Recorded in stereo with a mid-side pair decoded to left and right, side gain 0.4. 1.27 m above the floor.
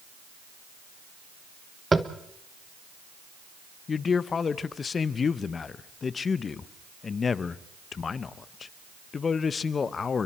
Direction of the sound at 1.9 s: 25° right.